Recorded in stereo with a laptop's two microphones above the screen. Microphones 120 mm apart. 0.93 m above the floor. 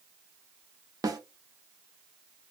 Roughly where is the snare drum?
Right.